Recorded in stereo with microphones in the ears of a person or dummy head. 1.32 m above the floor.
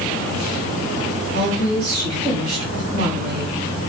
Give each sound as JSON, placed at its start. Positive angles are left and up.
{"t": 1.3, "sound": "a woman speaking", "side_deg": -45, "distance_m": 3.5}